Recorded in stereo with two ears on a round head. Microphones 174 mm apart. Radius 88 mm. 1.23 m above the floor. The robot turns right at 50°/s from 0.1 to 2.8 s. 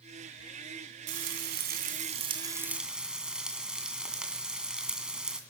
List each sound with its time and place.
1.1 s frying: 90° right, 2 m; by 5.4 s 5° right, 2 m